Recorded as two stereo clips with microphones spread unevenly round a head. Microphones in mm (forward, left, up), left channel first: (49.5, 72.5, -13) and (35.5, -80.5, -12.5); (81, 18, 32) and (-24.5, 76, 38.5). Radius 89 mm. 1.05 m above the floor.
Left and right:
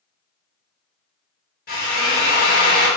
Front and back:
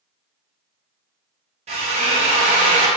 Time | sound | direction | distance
1.7 | a drill | 120° left | 1.4 m